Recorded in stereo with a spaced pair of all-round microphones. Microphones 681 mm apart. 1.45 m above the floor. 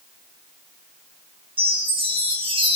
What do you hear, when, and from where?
1.6 s a chime: 5° right (ahead or behind), 3 m